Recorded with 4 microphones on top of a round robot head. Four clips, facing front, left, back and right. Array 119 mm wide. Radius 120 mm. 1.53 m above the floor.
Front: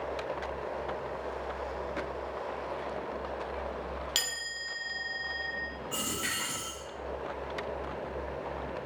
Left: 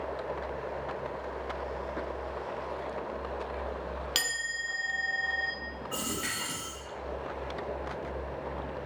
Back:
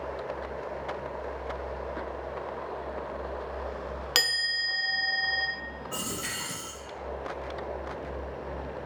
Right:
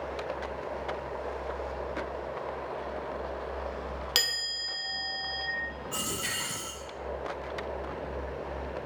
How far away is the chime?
About 0.8 m.